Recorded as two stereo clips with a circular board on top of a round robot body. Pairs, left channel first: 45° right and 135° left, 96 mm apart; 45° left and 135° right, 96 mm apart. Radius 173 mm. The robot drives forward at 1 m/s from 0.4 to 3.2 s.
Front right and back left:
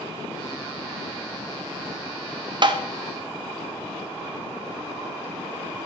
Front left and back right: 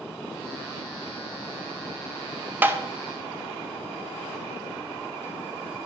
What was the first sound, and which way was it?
Tapping, 160° left.